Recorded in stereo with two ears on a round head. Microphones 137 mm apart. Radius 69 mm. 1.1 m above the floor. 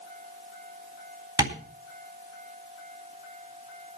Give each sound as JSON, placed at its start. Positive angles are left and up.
{"t": 1.4, "sound": "tapping", "side_deg": -30, "distance_m": 3.5}